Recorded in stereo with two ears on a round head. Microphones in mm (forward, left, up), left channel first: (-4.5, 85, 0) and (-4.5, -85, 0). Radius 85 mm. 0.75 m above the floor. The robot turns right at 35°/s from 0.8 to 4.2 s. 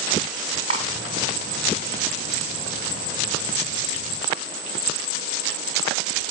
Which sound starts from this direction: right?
Cutlery clinking, at 0.7 s.